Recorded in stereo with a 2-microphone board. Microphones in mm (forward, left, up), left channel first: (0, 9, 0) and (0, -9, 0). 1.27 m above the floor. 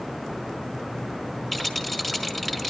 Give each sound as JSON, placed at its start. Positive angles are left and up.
{"t": 1.5, "sound": "a rattle", "side_deg": 5, "distance_m": 3.5}